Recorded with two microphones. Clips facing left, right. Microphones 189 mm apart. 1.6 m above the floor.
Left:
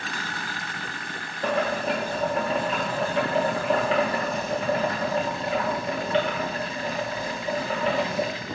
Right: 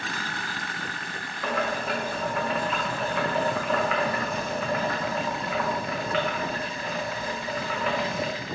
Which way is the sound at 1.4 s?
30° left (ahead or behind).